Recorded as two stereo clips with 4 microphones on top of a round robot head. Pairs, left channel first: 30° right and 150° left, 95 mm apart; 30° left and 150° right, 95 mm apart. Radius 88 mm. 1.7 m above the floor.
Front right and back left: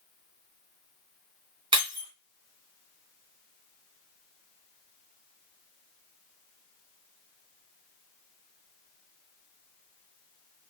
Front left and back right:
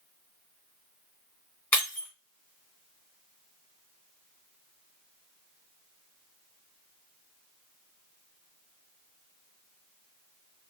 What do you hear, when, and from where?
1.7 s breaking glass: 105° left, 2.5 m